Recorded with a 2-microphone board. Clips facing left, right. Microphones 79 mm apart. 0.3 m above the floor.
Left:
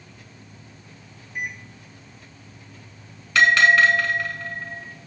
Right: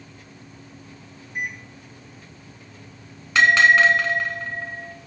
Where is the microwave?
50° right (ahead or behind), 3 m.